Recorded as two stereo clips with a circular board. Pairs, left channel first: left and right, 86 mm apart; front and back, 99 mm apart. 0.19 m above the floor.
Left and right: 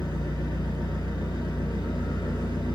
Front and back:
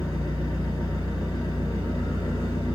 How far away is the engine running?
About 2.5 m.